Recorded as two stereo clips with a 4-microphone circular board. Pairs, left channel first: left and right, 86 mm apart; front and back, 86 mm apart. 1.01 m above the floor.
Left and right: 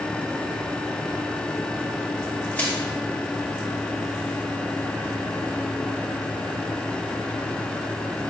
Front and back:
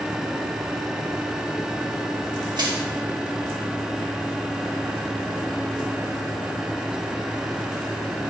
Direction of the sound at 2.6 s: 160° left.